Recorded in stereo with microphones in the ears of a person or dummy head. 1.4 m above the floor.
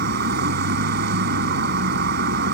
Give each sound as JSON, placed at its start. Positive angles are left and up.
{"t": 0.0, "sound": "a vehicle", "side_deg": -65}